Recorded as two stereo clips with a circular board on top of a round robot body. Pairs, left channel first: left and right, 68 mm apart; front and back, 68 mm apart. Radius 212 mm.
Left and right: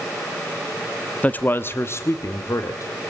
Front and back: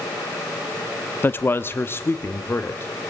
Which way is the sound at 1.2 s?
35° left.